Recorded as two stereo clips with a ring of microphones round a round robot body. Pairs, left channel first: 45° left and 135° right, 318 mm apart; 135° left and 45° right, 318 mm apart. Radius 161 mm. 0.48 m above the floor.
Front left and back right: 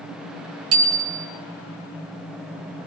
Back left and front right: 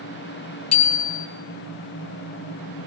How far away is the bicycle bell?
About 2.5 m.